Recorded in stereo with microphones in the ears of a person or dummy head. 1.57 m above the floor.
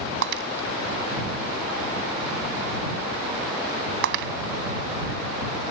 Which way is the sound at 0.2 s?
65° right (ahead or behind).